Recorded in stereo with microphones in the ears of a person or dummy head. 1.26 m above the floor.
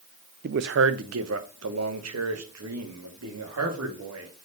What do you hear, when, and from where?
0.4 s a man speaking: 50° right (ahead or behind), 0.5 m; by 4.5 s 85° right, 3 m